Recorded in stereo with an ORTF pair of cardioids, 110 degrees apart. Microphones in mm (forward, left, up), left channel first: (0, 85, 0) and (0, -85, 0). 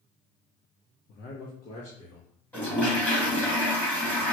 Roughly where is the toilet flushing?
Ahead.